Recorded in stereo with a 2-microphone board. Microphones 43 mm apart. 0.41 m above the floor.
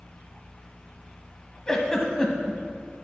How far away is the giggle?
About 1.0 m.